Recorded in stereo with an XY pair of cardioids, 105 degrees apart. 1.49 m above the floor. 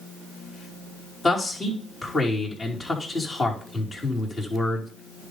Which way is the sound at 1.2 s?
30° left.